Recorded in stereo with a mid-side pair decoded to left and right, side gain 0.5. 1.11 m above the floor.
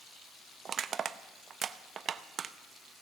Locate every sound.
0.7 s crushing: 45° right, 0.7 m